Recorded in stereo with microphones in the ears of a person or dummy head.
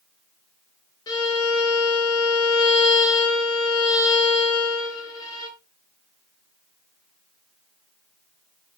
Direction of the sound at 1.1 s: 20° left (ahead or behind).